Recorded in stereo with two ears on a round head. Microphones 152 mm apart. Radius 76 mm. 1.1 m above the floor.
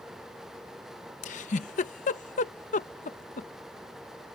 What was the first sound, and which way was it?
A giggle, 45° left (ahead or behind).